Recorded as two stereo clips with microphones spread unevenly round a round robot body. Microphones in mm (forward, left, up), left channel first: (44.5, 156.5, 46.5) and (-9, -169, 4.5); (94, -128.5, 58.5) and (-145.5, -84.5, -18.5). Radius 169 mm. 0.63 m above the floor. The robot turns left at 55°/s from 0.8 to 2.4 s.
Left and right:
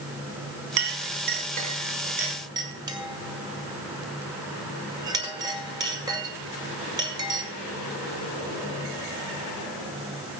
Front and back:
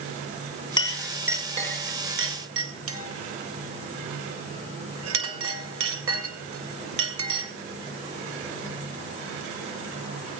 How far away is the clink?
About 2 m.